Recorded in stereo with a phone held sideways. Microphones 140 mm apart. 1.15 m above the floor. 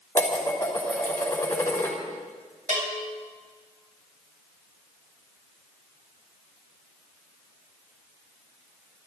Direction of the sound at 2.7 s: 70° right (ahead or behind).